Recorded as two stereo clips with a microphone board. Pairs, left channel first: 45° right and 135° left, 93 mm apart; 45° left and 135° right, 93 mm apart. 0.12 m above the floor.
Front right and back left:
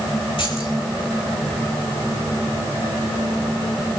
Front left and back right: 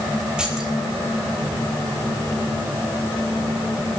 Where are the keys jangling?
55° right, 6.5 m.